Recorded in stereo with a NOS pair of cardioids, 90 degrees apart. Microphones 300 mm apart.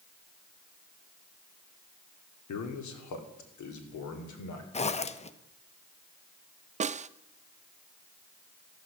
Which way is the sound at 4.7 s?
20° left.